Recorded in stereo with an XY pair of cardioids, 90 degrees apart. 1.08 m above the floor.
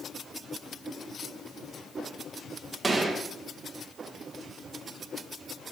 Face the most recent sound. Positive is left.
turn(degrees=-35)